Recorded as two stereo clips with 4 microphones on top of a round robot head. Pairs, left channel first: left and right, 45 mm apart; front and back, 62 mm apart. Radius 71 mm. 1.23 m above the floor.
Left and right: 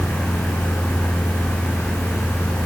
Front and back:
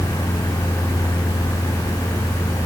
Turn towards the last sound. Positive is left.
No sound to turn to.